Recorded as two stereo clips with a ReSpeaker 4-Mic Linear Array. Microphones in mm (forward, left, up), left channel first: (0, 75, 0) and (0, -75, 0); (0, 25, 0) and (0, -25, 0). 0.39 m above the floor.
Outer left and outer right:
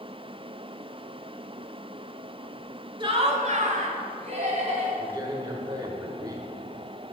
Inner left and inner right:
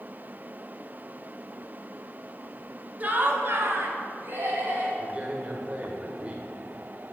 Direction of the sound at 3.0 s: 35° right (ahead or behind).